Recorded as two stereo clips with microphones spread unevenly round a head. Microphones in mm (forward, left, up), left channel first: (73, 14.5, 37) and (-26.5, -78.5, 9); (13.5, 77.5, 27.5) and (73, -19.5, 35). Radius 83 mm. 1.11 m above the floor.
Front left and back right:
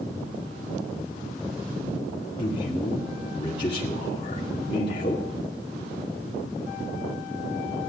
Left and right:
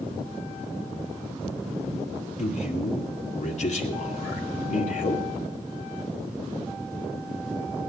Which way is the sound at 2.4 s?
105° left.